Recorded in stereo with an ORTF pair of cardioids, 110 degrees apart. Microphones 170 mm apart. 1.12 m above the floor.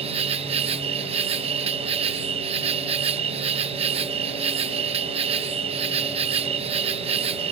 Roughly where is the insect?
Ahead right.